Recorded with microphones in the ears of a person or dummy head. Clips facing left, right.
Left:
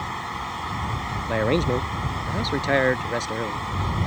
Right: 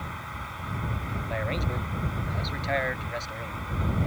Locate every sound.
0.0 s a fan: 85° left
1.3 s a man speaking: 85° left